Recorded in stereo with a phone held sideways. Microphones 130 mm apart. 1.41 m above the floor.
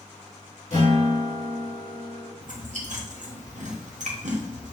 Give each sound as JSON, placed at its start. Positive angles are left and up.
{"t": 0.7, "sound": "a guitar", "side_deg": 75, "distance_m": 2.5}
{"t": 2.4, "sound": "chewing", "side_deg": -65, "distance_m": 1.0}